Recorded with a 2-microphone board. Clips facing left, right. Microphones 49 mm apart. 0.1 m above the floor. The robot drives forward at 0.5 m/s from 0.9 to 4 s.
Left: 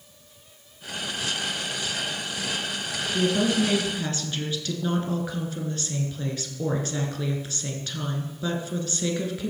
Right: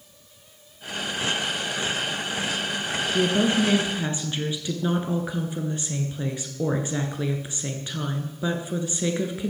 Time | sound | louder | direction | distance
3.1 | a woman speaking | right 1 dB | 15° right (ahead or behind) | 1.3 m